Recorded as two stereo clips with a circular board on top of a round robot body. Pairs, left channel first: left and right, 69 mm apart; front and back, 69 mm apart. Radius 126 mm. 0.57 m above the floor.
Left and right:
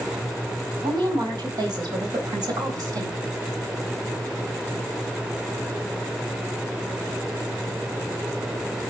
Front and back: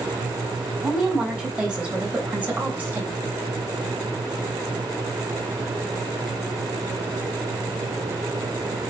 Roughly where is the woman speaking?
Right.